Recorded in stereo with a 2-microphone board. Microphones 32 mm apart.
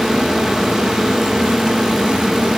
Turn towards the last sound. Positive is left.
No sound to turn to.